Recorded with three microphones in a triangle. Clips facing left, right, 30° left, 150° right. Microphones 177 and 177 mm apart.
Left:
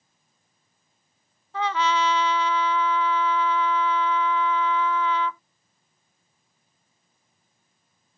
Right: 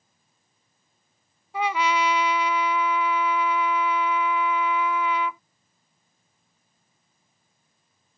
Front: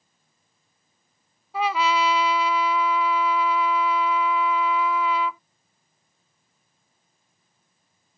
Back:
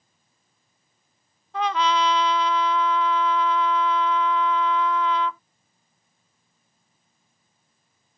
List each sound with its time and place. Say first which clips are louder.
1.5 s a trumpet: even, even; 40° right